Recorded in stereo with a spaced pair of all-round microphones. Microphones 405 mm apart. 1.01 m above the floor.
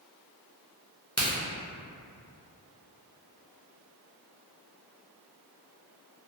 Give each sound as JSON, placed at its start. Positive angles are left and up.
{"t": 1.2, "sound": "a crack", "side_deg": -35, "distance_m": 0.8}